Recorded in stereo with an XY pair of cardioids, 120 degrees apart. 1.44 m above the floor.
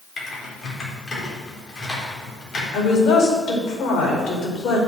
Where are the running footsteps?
I don't hear running footsteps.